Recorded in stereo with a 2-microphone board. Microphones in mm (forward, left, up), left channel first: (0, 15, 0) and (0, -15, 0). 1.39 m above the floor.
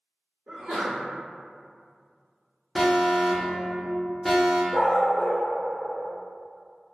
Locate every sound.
0.5 s a sneeze: 65° right (ahead or behind), 1.2 m
2.8 s an alarm: 5° left (ahead or behind), 0.7 m
4.7 s a dog barking: 25° right (ahead or behind), 0.8 m